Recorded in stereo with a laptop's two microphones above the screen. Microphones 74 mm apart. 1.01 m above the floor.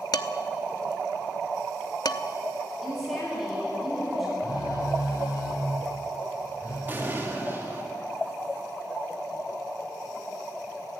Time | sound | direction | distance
0.1 | dishes clattering | 65° left (ahead or behind) | 1.0 m
2.8 | a woman speaking | 5° left (ahead or behind) | 9 m
4.4 | a phone buzzing | 40° left (ahead or behind) | 9.5 m
6.9 | an explosion | 30° right (ahead or behind) | 2.5 m